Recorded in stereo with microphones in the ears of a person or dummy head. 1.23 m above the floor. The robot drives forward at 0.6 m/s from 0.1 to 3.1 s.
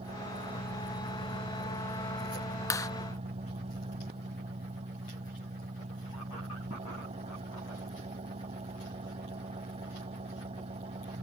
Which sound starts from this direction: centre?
A clap, at 2.7 s.